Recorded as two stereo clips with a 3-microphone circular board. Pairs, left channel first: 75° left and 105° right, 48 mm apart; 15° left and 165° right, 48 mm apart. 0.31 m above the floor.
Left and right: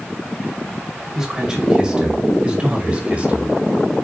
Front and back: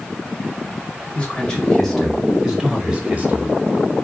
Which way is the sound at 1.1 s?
35° right.